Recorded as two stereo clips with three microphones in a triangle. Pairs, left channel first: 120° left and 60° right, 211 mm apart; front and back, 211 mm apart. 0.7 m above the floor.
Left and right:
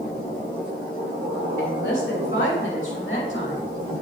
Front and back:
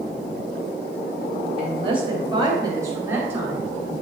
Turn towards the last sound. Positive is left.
turn(degrees=100)